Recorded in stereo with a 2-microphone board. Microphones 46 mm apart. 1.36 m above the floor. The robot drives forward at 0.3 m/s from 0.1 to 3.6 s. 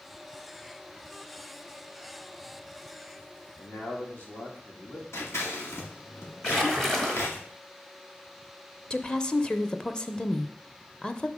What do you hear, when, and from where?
3.6 s a man speaking: 45° left (ahead or behind), 2.5 m
5.1 s scissors: 70° left (ahead or behind), 2 m
6.4 s a splash: 5° left (ahead or behind), 1.3 m
8.9 s a woman speaking: 20° left (ahead or behind), 0.6 m